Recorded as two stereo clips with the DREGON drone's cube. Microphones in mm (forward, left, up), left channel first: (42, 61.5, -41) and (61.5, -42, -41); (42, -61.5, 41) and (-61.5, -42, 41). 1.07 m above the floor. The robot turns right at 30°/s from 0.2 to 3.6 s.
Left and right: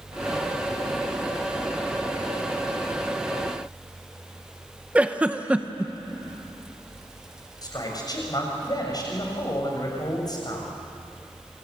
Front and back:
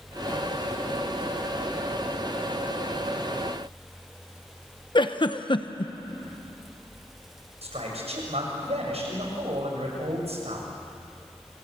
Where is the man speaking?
150° left, 6.5 m.